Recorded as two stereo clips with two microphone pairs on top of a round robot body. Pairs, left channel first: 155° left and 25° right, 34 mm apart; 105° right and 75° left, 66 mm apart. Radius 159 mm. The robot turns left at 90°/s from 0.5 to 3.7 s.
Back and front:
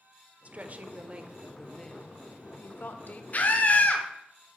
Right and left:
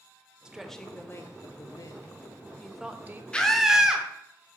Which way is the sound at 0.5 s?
Straight ahead.